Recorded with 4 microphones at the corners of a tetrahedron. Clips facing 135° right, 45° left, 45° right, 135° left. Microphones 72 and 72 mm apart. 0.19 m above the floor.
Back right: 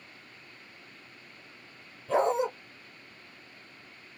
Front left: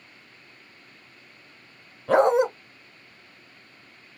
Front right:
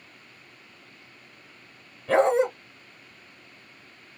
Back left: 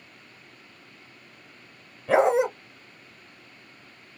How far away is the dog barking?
About 0.8 m.